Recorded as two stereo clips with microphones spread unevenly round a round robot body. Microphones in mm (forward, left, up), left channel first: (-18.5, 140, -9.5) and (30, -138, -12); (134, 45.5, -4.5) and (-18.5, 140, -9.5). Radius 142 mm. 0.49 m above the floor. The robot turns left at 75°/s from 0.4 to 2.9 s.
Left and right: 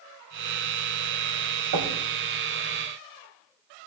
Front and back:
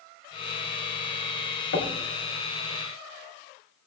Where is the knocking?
60° right, 2.5 m; by 2.0 s 80° right, 2.5 m.